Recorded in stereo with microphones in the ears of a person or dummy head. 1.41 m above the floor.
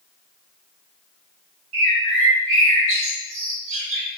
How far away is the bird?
About 1.4 m.